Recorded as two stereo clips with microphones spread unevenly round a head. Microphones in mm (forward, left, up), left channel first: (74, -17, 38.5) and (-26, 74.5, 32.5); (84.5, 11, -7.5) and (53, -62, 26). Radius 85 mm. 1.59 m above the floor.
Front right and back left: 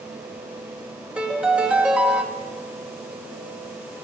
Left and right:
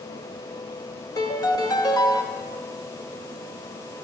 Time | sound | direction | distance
1.2 | a piano | 65° left | 1.0 m